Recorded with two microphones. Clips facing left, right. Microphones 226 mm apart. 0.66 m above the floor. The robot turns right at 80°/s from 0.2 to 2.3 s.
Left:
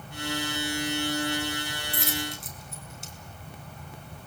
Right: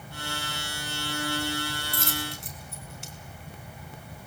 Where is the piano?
I don't hear a piano.